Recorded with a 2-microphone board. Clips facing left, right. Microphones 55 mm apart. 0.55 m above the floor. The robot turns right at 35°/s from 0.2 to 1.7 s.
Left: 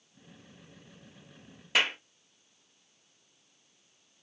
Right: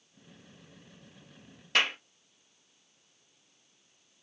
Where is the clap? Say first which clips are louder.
Even; 5° left (ahead or behind), 0.7 m.